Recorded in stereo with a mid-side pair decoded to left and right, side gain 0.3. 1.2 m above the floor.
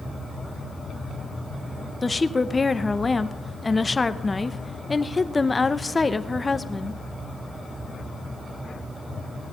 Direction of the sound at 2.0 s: 30° left.